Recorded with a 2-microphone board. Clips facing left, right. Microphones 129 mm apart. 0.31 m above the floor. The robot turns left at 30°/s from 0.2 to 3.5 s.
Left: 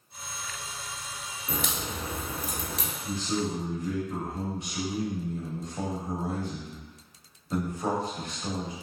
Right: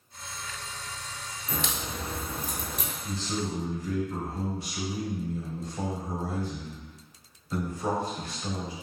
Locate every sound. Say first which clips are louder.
1.5 s a crack: left 1 dB; 35° left (ahead or behind), 1.0 m; by 2.9 s 80° left, 1.0 m
3.0 s a man speaking: left 3 dB; 15° left (ahead or behind), 1.1 m; by 8.7 s 20° left (ahead or behind), 1.1 m